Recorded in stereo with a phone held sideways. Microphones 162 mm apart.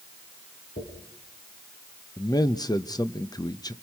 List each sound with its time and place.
0.8 s a dropped coin: 80° left, 7 m
2.2 s a man speaking: 25° left (ahead or behind), 0.9 m